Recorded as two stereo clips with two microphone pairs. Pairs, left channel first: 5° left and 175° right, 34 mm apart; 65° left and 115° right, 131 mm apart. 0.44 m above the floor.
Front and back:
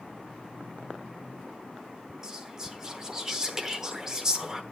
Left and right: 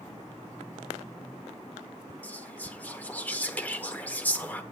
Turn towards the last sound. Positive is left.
turn(degrees=130)